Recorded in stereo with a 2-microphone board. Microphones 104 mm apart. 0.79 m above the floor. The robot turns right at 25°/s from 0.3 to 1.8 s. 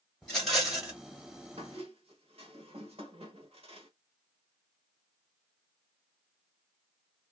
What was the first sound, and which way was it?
A rattle, 5° left (ahead or behind).